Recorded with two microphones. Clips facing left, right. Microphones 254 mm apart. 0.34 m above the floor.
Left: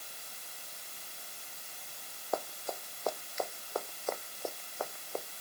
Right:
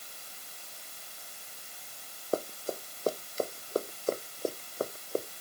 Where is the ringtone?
I don't hear a ringtone.